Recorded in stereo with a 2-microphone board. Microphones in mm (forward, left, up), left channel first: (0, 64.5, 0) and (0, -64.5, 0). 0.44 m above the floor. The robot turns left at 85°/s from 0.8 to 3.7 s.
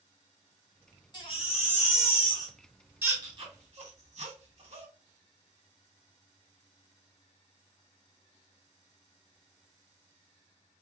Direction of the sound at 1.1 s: 30° left (ahead or behind).